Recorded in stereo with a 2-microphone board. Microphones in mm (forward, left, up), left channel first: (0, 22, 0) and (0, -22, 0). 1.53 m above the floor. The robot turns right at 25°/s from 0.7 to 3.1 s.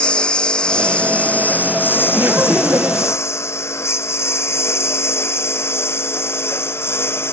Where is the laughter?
40° right (ahead or behind); by 3.2 s 65° right (ahead or behind).